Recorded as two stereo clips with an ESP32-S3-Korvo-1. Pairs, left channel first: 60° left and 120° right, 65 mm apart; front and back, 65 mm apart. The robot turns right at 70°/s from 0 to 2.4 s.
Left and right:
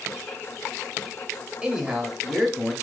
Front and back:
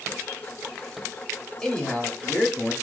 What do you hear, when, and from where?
1.6 s a man speaking: 70° right, 1.0 m; by 2.7 s 15° right, 1.0 m